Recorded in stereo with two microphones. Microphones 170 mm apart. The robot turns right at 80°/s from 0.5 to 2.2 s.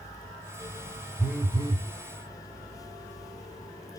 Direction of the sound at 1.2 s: 175° left.